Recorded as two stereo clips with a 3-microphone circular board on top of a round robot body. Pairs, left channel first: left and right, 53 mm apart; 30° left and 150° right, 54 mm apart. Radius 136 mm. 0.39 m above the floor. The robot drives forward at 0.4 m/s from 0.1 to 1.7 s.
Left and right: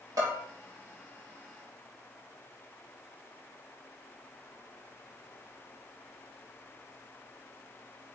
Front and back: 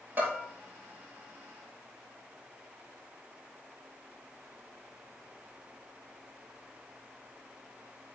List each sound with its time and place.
0.2 s a bell: 90° right, 5 m